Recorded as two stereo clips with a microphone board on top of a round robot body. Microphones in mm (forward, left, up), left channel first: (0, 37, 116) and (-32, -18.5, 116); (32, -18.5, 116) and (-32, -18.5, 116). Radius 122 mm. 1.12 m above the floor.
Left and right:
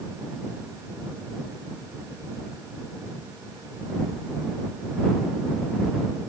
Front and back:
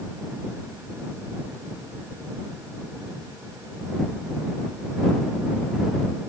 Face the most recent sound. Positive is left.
No sound to turn to.